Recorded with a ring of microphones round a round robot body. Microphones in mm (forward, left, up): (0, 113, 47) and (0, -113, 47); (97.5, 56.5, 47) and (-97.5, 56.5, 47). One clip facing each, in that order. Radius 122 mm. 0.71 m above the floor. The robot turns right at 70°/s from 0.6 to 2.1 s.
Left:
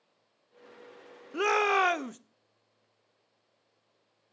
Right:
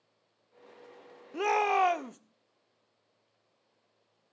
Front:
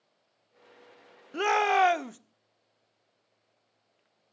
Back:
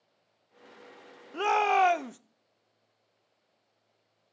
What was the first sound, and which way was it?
A shout, 35° left.